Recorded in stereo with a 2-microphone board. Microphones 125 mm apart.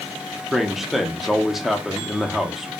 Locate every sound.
0.5 s a man speaking: centre (ahead or behind), 0.6 m